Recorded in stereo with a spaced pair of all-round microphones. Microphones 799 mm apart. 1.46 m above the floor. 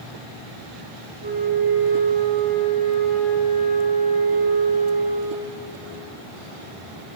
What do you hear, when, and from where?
1.2 s a flute: 35° left (ahead or behind), 8 m